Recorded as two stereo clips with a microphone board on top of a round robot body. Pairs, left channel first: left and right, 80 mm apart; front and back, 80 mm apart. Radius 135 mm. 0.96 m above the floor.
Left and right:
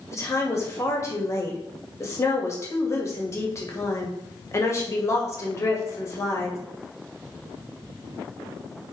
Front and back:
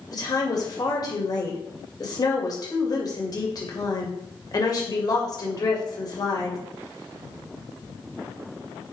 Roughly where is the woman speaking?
Ahead left.